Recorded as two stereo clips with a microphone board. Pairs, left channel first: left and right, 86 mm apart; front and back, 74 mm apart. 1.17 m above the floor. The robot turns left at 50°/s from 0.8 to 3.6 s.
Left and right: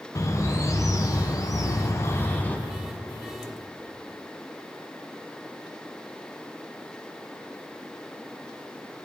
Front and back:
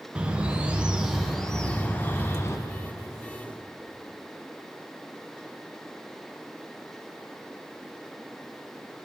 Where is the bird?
115° left, 0.8 m; by 2.6 s 25° left, 0.8 m.